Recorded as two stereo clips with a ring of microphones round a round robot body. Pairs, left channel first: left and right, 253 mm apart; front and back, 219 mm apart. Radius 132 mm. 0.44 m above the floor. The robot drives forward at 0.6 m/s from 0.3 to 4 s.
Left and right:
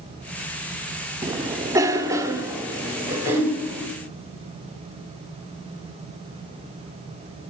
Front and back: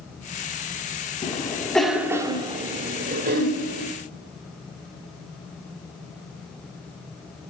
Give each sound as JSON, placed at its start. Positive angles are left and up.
{"t": 1.2, "sound": "a cough", "azimuth_deg": -30, "distance_m": 1.1}